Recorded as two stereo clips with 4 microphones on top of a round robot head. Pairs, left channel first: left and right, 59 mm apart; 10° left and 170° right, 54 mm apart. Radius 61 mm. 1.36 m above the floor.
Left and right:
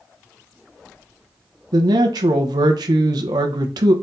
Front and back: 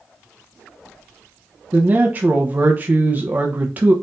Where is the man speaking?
105° right, 0.9 m.